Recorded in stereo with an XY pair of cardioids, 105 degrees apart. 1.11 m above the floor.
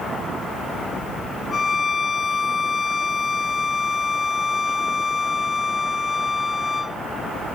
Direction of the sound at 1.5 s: 40° left.